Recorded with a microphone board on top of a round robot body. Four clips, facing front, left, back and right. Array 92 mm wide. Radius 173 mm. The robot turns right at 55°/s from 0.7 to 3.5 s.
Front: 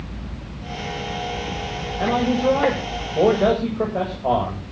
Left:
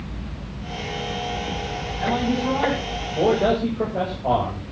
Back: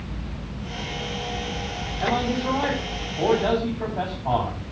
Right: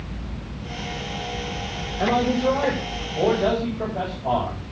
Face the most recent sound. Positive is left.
turn(degrees=25)